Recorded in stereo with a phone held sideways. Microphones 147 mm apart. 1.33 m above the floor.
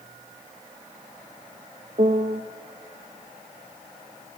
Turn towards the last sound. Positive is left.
turn(degrees=-50)  # may be behind; listen again after turning